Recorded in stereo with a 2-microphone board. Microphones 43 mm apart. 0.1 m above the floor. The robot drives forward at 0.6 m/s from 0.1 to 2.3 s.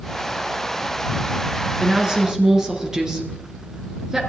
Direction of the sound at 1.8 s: 15° right (ahead or behind).